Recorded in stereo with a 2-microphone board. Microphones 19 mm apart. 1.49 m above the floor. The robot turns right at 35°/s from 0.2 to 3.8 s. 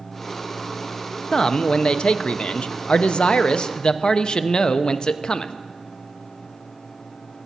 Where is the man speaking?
40° left, 0.5 m; by 5.5 s 125° left, 0.5 m.